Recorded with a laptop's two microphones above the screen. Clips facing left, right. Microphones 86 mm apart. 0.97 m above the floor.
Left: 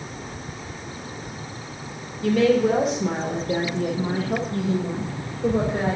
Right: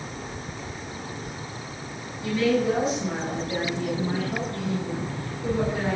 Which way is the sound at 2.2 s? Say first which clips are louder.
Left 4 dB; 75° left (ahead or behind).